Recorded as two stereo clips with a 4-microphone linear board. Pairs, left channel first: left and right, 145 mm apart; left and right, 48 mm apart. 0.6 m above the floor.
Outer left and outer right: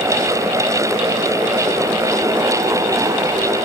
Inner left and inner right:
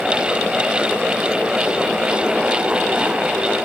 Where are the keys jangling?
No keys jangling in this recording.